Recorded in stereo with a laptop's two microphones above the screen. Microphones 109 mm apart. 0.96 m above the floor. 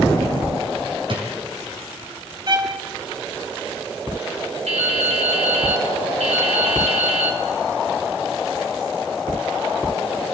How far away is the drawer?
About 3 m.